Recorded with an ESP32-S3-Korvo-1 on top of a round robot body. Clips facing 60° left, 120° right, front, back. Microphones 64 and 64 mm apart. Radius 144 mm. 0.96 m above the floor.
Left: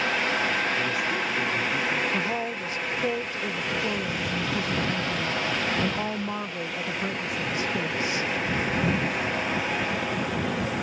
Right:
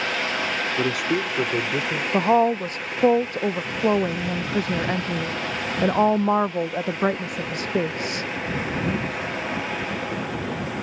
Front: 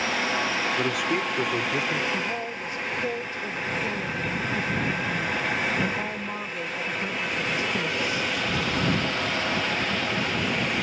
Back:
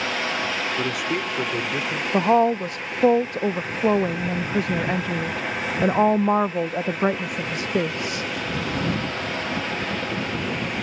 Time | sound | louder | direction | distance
0.8 | a man speaking | right 3 dB, even | 90° right | ?
2.1 | a woman speaking | right 10 dB, back 12 dB | 155° right | ?